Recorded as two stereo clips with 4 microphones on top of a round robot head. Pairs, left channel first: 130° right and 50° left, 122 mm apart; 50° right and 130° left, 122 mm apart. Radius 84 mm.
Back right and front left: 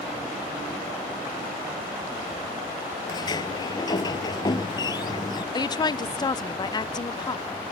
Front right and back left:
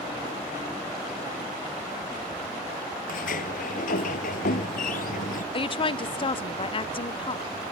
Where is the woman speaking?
85° right.